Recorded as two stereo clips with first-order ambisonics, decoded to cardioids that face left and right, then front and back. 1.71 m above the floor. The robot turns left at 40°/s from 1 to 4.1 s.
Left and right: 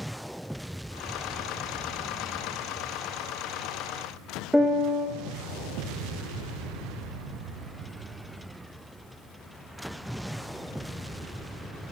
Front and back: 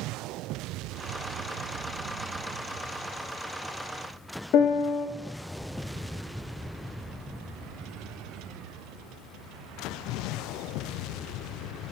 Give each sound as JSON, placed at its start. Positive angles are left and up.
{"t": 4.5, "sound": "a piano", "azimuth_deg": -5, "distance_m": 0.5}